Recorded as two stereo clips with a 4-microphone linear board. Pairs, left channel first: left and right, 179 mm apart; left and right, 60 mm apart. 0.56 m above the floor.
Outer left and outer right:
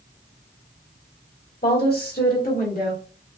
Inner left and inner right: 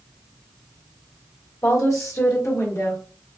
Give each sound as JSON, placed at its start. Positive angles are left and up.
{"t": 1.6, "sound": "a woman speaking", "side_deg": 60, "distance_m": 1.7}